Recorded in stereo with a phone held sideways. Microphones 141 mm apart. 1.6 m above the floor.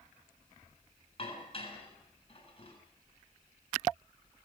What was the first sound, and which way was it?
Dishes clattering, 40° left (ahead or behind).